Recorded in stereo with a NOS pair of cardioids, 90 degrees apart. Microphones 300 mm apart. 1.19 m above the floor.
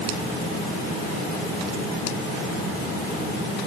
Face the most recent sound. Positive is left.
No sound to turn to.